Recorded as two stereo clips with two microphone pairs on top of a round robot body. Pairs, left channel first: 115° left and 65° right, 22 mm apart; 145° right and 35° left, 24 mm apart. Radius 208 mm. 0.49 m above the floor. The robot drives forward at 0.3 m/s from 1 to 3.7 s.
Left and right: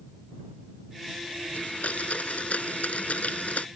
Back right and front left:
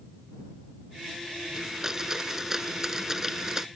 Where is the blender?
105° left; by 3.7 s 110° left.